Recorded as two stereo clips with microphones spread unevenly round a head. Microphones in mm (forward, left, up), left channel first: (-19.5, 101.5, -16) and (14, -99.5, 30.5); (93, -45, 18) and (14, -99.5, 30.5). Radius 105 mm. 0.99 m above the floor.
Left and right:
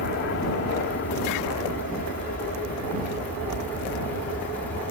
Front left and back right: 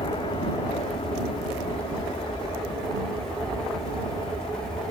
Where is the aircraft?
75° left; by 4.9 s 70° left.